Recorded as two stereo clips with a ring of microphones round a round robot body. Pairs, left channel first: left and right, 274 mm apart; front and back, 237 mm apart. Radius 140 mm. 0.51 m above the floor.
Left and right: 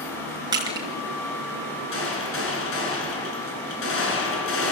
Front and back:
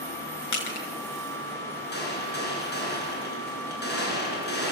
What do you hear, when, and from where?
0.5 s crushing: 15° right, 5 m
1.9 s a gunshot: 45° left, 7.5 m